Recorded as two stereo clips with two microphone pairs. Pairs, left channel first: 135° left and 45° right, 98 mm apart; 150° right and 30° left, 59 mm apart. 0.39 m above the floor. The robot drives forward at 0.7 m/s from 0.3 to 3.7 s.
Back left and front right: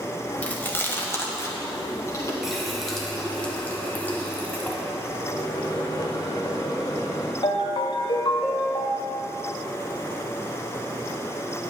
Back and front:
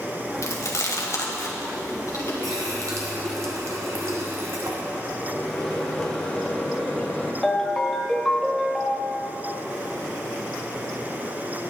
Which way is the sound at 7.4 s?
140° left.